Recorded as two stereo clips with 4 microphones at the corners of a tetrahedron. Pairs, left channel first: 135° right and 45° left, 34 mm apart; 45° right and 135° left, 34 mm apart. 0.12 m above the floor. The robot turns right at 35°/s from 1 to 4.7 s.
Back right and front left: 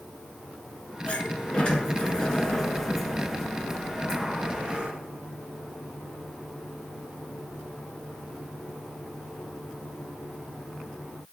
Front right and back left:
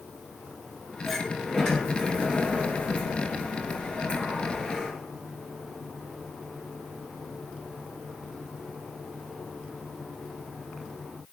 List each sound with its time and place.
1.1 s a sliding door: 120° right, 1.3 m; by 4.9 s 10° left, 1.3 m